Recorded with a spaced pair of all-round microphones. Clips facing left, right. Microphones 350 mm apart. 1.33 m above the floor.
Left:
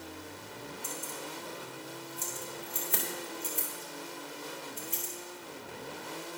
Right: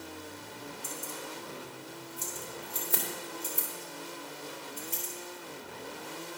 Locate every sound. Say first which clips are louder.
0.8 s keys jangling: right 1 dB; 55° right (ahead or behind), 2 m